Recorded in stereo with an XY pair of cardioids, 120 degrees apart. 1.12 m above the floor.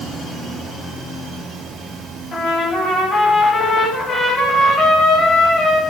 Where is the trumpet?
40° left, 7 m.